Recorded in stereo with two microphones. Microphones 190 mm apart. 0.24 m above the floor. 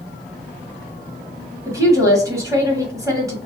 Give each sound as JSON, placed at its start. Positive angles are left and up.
{"t": 1.6, "sound": "a woman speaking", "side_deg": -15, "distance_m": 1.3}